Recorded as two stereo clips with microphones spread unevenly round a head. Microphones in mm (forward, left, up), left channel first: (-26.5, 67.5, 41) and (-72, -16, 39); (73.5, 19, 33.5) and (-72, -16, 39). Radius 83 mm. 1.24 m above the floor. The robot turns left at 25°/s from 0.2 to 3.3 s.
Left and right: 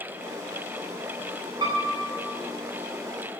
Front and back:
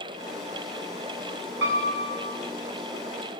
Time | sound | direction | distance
1.6 | a piano | 155° right | 8.5 m